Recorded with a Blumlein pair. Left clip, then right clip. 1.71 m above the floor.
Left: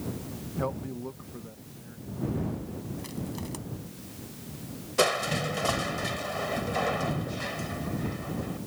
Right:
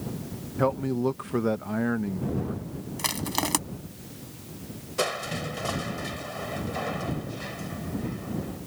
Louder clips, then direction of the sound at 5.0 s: Left 3 dB; 10° left.